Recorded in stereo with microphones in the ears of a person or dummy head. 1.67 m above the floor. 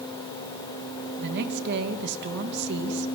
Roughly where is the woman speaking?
Right.